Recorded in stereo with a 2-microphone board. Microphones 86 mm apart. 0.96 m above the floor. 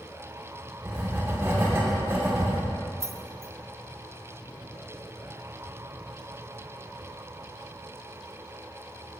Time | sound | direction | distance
0.8 | writing | 30° right (ahead or behind) | 2 m
3.0 | keys jangling | 35° right (ahead or behind) | 0.6 m